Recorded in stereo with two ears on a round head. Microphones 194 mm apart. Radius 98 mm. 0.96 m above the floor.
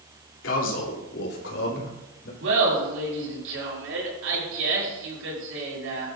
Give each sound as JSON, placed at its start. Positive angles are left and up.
{"t": 0.4, "sound": "a man speaking", "side_deg": 60, "distance_m": 3.5}
{"t": 2.4, "sound": "laughter", "side_deg": -60, "distance_m": 7.5}